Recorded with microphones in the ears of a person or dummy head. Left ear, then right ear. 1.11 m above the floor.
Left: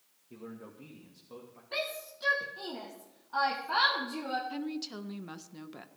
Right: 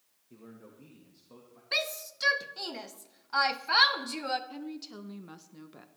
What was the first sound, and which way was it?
A man speaking, 15° left (ahead or behind).